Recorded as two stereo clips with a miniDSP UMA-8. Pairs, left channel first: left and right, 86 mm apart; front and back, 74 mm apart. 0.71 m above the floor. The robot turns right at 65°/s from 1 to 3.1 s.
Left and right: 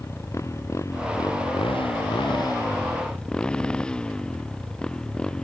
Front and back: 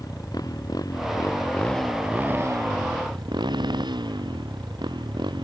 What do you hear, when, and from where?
0.0 s a motorcycle: 35° left; by 5.5 s 170° left